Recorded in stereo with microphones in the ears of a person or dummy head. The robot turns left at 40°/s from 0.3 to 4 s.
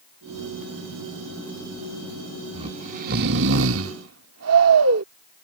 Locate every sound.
2.5 s snoring: 40° right; by 5.0 s 100° right